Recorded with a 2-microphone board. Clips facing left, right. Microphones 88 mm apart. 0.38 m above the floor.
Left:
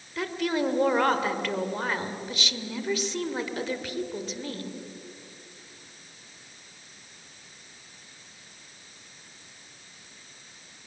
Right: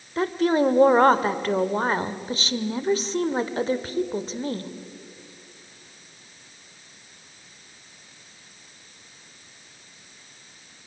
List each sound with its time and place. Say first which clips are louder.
0.2 s a woman speaking: right 7 dB; 35° right (ahead or behind), 1.2 m